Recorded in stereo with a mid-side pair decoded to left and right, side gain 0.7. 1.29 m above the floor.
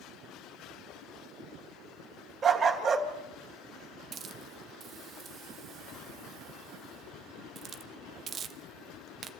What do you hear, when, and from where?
2.4 s a dog barking: 30° right, 2.5 m
4.1 s a hiss: 40° right, 1.0 m